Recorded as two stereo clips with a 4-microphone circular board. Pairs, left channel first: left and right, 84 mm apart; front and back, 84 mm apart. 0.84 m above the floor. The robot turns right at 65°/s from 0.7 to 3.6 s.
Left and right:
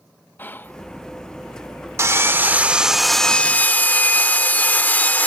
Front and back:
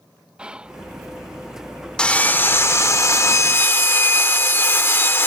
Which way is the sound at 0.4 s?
120° left.